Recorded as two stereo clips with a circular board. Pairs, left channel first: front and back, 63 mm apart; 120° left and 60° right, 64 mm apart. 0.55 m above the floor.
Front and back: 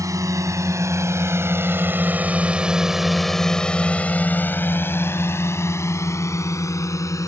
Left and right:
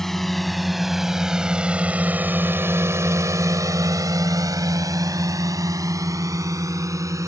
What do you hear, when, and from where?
0.0 s a drone: 155° right; by 7.3 s 30° right